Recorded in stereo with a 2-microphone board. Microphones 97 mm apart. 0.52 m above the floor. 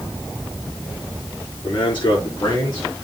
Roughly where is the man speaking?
Left.